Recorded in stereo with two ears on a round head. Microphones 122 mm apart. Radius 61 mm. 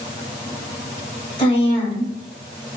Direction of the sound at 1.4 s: 35° left (ahead or behind).